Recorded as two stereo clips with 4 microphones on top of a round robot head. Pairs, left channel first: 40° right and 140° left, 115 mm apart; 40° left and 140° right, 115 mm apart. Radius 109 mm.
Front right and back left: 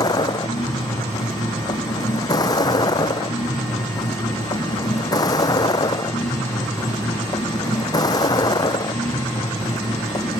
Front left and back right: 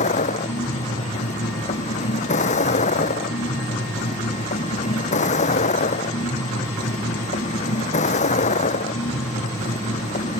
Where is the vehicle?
20° left.